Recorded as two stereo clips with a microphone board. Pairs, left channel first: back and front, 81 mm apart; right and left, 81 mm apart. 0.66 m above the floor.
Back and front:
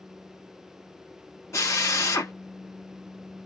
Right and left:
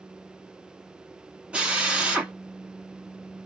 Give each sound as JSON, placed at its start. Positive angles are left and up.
{"t": 1.5, "sound": "a drill", "azimuth_deg": 160, "distance_m": 1.2}